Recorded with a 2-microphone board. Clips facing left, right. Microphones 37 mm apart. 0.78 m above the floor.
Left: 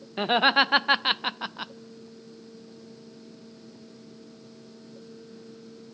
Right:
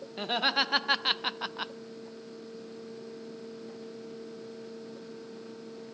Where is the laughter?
30° left (ahead or behind), 1.2 m; by 1.7 s 10° right (ahead or behind), 0.5 m.